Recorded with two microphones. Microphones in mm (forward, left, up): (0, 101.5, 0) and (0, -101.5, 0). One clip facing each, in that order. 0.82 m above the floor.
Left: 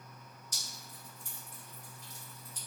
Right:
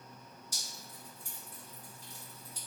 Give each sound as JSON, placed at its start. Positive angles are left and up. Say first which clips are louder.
{"t": 0.5, "sound": "dripping", "louder": "right 1 dB", "side_deg": -10, "distance_m": 1.4}